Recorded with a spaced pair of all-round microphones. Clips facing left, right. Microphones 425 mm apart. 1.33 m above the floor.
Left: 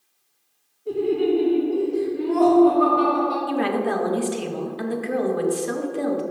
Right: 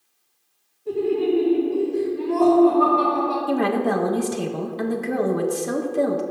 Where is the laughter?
5° right (ahead or behind), 1.9 m.